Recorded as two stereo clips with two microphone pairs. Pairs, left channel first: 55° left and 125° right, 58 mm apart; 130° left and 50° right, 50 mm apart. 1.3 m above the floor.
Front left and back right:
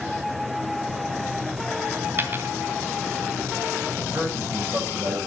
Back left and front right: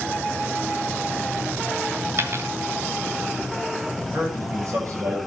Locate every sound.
2.2 s a dropped coin: 75° right, 2.5 m
4.0 s a man speaking: 75° right, 9 m